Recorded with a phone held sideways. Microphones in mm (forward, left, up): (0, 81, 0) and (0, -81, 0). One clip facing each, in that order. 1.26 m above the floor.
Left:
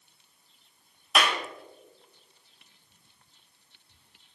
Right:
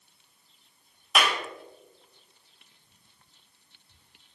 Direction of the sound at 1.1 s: 5° right (ahead or behind).